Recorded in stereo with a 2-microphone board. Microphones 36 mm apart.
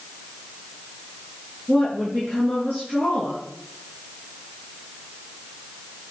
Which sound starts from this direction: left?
A woman speaking, at 1.7 s.